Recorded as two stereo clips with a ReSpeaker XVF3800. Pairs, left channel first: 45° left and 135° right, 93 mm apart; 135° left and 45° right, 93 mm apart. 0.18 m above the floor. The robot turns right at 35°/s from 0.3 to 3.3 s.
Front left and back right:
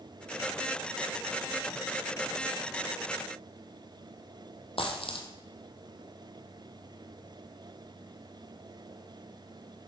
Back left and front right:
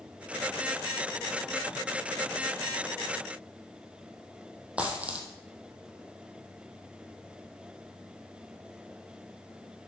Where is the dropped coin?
30° left, 1.4 m.